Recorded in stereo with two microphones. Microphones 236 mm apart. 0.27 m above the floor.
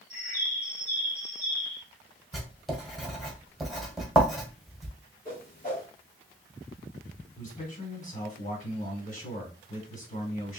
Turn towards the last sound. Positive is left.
turn(degrees=35)  # may be behind; listen again after turning